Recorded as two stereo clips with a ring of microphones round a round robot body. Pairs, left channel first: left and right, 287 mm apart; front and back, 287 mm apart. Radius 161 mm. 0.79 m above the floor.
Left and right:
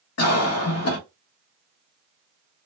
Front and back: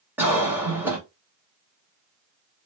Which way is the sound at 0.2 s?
95° left.